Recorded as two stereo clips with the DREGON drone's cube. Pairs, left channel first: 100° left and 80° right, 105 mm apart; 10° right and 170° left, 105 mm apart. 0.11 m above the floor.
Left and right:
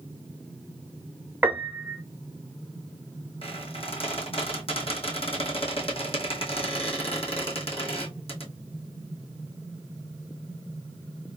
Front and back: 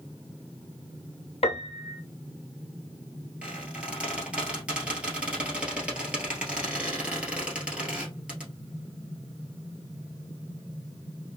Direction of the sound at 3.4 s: 90° left.